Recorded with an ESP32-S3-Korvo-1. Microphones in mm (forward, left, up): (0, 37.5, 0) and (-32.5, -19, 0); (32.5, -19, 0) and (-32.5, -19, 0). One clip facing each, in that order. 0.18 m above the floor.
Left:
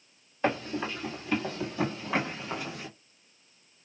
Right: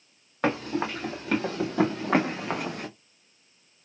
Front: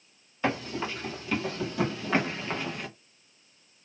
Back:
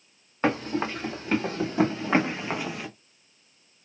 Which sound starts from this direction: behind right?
Running footsteps, at 0.4 s.